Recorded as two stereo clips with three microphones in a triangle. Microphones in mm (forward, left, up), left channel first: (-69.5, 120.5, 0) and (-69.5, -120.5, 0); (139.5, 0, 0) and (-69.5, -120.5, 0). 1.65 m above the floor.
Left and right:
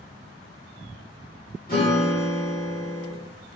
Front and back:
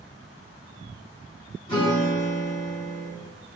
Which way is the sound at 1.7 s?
85° left.